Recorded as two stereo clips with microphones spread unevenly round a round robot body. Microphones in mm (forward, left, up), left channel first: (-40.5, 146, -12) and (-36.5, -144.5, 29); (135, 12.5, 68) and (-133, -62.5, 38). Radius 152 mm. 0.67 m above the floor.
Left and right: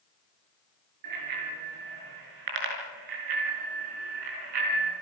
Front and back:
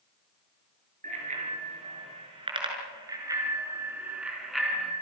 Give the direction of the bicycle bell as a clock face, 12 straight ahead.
3 o'clock.